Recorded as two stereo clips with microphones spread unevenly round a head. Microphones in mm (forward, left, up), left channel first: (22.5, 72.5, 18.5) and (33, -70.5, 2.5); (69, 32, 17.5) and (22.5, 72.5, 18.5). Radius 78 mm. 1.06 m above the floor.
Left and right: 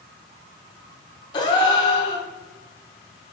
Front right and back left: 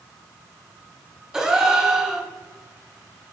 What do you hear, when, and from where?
1.3 s a gasp: 70° left, 0.7 m